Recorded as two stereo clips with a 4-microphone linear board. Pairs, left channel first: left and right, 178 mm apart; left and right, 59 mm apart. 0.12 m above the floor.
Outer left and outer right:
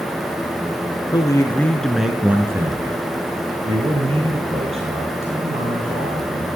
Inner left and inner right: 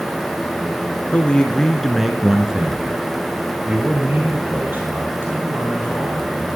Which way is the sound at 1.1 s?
25° left (ahead or behind).